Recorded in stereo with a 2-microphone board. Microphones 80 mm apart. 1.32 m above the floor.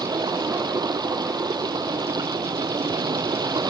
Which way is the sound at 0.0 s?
60° right (ahead or behind).